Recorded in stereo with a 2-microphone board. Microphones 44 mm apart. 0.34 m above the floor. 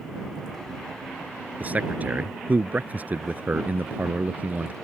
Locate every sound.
1.6 s a man speaking: 40° right (ahead or behind)